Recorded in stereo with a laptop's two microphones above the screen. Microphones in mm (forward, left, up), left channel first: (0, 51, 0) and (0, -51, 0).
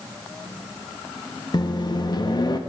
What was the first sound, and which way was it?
A microwave, 40° left (ahead or behind).